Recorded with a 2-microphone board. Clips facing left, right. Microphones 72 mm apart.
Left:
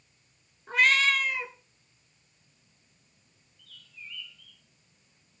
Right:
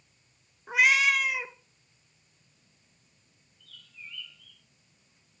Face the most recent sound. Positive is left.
turn(degrees=-35)  # may be behind; listen again after turning